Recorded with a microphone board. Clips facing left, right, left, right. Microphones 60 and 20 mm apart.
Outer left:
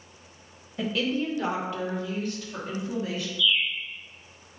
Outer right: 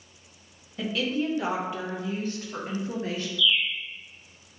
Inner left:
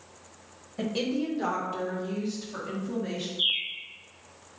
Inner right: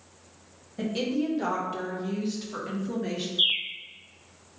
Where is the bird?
90° right, 1.3 m.